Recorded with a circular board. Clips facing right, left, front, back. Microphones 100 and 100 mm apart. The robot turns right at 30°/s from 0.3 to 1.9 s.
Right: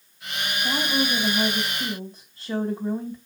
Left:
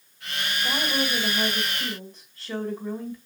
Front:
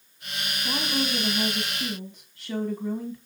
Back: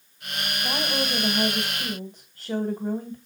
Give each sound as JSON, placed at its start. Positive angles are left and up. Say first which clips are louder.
{"t": 0.6, "sound": "a woman speaking", "louder": "right 2 dB, even", "azimuth_deg": 160, "distance_m": 1.9}